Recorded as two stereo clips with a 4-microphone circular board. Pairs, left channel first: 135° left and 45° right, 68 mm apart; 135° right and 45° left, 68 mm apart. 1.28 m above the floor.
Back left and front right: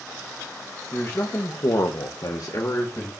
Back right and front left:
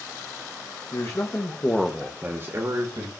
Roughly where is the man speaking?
Behind.